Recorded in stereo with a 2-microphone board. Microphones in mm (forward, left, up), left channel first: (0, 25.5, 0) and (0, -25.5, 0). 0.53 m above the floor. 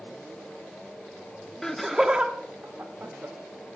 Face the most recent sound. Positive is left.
turn(degrees=-40)  # may be behind; listen again after turning